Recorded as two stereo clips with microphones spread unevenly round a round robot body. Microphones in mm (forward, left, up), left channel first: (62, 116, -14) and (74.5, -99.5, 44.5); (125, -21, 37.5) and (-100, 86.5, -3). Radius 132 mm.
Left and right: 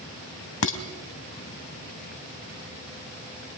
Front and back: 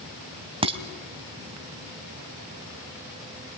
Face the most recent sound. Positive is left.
turn(degrees=90)